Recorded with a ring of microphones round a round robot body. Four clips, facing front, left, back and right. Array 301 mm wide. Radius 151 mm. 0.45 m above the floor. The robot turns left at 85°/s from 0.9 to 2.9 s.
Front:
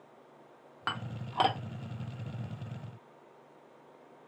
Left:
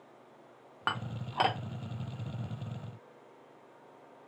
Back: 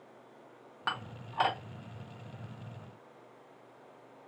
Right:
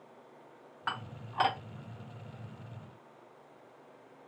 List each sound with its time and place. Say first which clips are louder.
0.9 s dishes clattering: left 3 dB, even; 80° left, 0.8 m; by 1.6 s 20° left, 0.8 m